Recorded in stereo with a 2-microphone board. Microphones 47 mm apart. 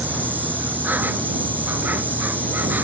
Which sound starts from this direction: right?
An insect, at 0.0 s.